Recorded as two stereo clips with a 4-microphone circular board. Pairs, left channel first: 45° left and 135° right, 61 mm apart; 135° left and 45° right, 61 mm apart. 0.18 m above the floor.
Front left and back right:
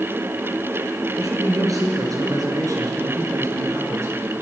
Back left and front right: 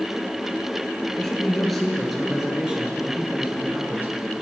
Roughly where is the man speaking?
Behind right.